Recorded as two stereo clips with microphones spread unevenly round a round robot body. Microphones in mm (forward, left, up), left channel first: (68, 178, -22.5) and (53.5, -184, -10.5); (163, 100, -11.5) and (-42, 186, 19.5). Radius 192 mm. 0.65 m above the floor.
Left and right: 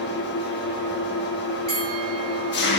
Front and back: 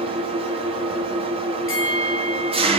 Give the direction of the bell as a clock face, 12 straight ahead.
1 o'clock.